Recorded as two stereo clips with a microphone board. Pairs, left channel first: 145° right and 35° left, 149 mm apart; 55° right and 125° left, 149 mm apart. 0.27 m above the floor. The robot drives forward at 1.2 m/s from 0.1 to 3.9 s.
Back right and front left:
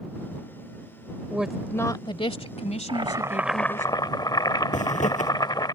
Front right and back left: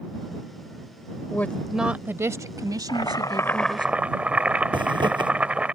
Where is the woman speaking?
20° right; by 3.9 s straight behind.